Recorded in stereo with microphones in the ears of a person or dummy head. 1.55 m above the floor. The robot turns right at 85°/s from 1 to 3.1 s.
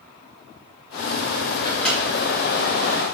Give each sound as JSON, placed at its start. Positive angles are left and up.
{"t": 1.6, "sound": "a microwave", "side_deg": 20, "distance_m": 0.6}